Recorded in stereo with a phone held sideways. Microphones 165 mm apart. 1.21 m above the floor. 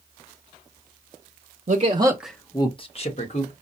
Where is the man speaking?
40° right (ahead or behind), 0.8 m; by 3.5 s 45° left (ahead or behind), 1.6 m.